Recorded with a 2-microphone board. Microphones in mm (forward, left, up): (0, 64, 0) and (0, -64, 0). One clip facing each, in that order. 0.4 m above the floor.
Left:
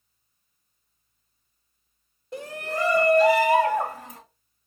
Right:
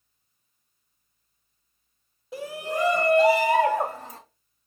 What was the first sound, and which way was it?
A shout, centre (ahead or behind).